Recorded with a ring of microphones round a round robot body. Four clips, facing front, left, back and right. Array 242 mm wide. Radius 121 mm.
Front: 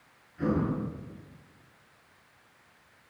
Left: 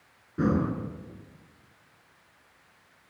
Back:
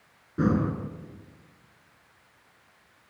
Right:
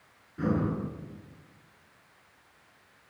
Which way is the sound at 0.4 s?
150° left.